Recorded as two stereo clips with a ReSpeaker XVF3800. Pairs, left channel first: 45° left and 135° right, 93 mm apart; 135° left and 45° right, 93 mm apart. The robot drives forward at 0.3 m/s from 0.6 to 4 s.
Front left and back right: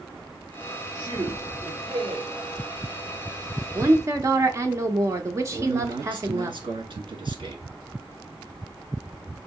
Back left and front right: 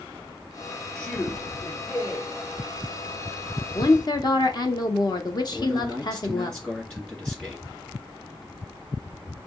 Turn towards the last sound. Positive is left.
turn(degrees=-150)